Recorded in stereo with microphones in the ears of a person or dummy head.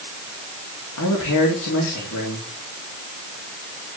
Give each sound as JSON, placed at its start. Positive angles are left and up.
{"t": 1.0, "sound": "a man speaking", "side_deg": 80, "distance_m": 3.5}